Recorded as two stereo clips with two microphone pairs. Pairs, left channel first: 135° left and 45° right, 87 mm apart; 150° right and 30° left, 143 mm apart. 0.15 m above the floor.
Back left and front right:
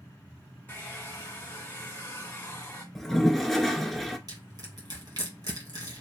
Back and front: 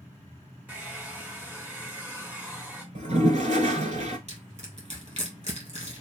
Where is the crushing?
5° right, 2.5 m.